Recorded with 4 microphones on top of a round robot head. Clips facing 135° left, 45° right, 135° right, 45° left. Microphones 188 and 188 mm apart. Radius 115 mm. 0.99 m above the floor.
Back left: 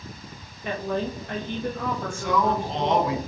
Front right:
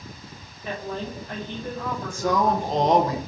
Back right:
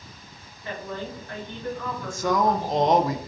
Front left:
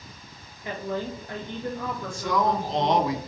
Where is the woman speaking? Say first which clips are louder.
Back left 4 dB, front left 3 dB; 115° left, 1.3 m.